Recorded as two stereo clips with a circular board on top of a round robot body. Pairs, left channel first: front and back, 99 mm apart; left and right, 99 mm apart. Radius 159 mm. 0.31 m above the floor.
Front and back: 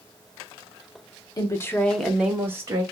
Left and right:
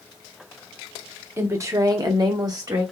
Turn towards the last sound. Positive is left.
turn(degrees=-135)